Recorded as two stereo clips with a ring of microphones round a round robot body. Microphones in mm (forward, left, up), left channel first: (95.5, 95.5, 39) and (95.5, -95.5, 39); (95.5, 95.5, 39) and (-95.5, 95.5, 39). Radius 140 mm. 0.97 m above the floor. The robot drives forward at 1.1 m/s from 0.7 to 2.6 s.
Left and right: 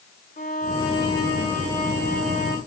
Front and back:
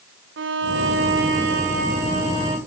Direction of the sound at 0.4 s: 155° left.